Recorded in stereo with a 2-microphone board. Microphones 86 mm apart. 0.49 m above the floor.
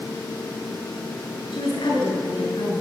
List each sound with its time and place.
1.5 s a woman speaking: 70° left (ahead or behind), 7.5 m